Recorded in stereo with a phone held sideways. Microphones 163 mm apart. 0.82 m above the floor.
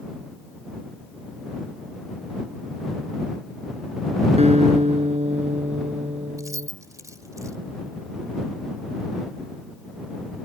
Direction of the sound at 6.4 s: 20° right (ahead or behind).